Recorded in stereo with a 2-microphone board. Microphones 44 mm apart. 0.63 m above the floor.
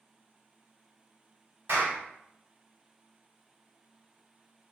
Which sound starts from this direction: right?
A clap, at 1.7 s.